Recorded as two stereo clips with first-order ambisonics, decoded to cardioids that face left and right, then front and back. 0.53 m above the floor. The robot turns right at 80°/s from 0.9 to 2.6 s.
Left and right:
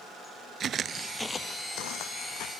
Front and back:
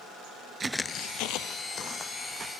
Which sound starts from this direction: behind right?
Footsteps, at 0.6 s.